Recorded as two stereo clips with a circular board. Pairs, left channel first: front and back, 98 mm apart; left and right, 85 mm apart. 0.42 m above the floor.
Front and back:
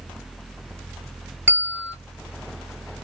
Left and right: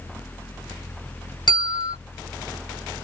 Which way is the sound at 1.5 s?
110° left.